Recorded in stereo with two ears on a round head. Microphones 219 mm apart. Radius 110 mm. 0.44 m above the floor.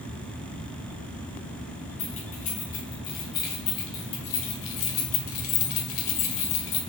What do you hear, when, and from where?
2.0 s keys jangling: 30° left (ahead or behind), 3 m; by 6.8 s 50° left (ahead or behind), 1.6 m